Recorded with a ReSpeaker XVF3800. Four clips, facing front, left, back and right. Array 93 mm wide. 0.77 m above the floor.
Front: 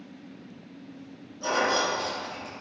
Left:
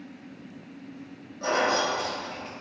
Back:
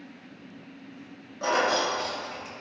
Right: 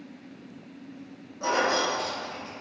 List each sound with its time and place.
1.4 s keys jangling: 170° right, 0.9 m; by 2.5 s 110° left, 0.6 m